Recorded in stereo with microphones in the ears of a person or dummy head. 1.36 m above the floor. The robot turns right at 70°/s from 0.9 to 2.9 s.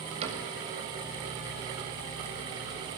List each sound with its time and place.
0.2 s a cupboard door: 40° right (ahead or behind), 7.5 m